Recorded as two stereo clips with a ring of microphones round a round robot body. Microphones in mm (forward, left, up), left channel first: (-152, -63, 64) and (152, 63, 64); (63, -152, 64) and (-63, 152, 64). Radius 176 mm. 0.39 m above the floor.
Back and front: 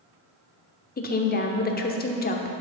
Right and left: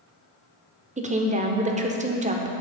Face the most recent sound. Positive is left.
turn(degrees=165)